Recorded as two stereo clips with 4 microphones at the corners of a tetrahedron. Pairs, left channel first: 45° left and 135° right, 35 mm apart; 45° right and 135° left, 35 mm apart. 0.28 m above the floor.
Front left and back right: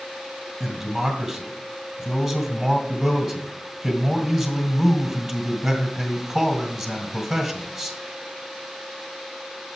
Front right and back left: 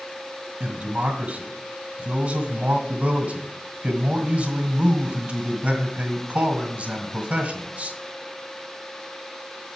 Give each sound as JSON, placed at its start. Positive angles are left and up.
{"t": 0.6, "sound": "a man speaking", "azimuth_deg": 165, "distance_m": 1.7}